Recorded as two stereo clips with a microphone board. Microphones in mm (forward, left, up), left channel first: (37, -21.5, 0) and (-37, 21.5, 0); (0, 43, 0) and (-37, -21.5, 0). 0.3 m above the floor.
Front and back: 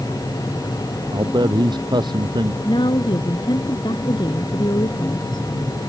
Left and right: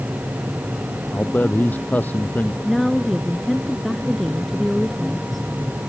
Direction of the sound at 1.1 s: 125° left.